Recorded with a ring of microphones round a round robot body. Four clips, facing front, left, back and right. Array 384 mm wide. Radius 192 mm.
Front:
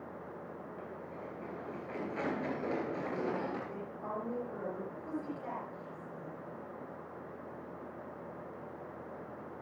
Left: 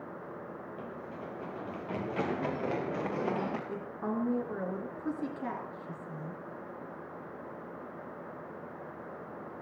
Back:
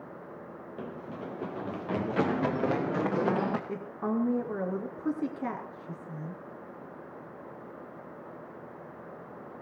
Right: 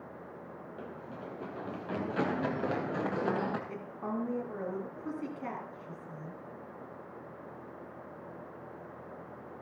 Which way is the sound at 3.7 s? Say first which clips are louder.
Left 2 dB, back 8 dB; 170° left.